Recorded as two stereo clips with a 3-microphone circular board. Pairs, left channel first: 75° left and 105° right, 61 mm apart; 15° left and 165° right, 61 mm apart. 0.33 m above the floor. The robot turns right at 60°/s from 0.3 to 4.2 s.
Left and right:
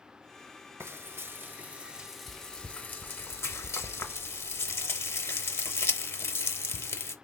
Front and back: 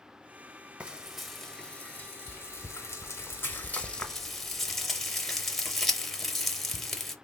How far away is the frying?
About 0.7 m.